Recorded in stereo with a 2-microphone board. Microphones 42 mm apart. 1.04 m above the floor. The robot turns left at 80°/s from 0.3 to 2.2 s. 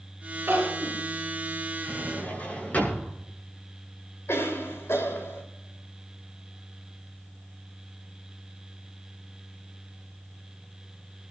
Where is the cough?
75° left (ahead or behind), 4 m.